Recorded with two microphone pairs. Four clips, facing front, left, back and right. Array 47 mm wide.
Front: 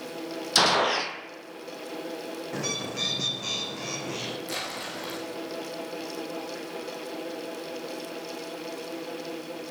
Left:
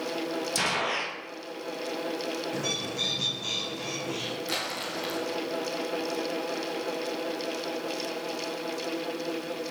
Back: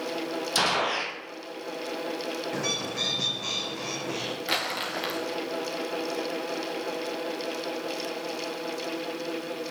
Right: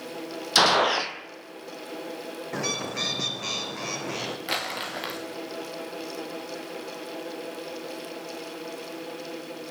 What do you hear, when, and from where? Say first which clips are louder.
0.6 s a gunshot: right 10 dB, front 4 dB; 75° right, 1.3 m
2.5 s a bird: right 1 dB, front 2 dB; 100° right, 2 m
4.5 s crumpling: right 2 dB, back 5 dB; 145° right, 3.5 m